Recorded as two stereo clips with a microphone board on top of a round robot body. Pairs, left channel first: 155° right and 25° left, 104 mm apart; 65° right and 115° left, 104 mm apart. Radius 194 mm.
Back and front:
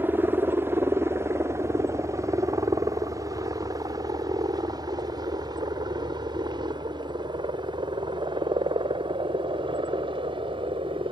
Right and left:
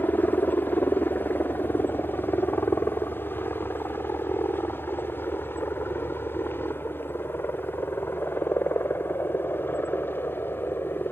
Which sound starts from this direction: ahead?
A helicopter, at 0.0 s.